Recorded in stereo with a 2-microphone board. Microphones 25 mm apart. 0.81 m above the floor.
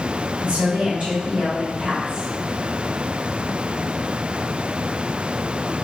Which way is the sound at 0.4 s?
60° right (ahead or behind).